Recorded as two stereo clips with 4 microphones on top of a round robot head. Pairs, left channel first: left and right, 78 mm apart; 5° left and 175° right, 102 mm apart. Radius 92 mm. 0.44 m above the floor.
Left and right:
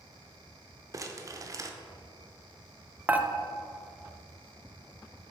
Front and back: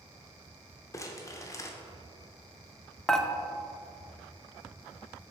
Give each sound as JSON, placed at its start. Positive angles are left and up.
{"t": 0.9, "sound": "crumpling", "azimuth_deg": -50, "distance_m": 0.7}
{"t": 3.1, "sound": "dishes clattering", "azimuth_deg": -75, "distance_m": 0.6}